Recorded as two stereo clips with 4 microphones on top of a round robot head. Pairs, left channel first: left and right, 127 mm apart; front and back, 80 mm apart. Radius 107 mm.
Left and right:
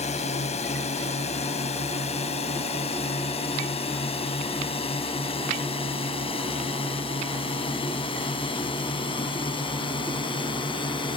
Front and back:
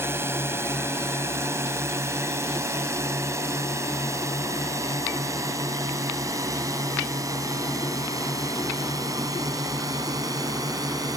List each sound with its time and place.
0.0 s a drone: 120° left; by 11.2 s 140° left